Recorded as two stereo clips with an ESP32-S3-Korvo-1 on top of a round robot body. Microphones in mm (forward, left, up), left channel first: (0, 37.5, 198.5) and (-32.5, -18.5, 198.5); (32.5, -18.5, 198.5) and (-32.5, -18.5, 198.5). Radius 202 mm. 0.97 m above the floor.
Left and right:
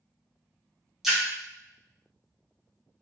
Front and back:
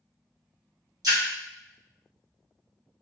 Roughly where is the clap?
I don't hear a clap.